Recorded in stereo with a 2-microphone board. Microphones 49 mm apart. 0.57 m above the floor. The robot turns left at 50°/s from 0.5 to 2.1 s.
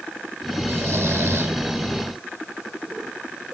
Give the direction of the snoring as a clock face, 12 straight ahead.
2 o'clock.